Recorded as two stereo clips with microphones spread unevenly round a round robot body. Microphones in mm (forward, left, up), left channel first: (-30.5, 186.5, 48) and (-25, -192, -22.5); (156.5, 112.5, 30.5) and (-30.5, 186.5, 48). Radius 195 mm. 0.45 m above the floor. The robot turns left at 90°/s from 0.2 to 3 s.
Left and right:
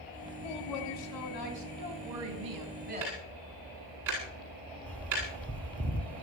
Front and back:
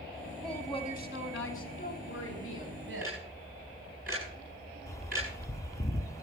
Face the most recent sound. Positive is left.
turn(degrees=-20)